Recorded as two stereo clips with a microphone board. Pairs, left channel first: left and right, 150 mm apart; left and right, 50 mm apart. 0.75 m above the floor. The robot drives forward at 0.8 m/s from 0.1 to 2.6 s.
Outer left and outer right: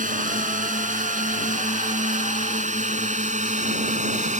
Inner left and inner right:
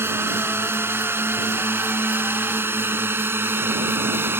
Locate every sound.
0.0 s a drone: 60° right (ahead or behind); by 4.4 s 50° right (ahead or behind)